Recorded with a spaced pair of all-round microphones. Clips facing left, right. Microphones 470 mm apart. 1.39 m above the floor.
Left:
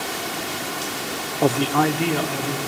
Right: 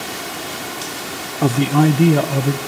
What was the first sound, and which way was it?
A man speaking, 25° right (ahead or behind).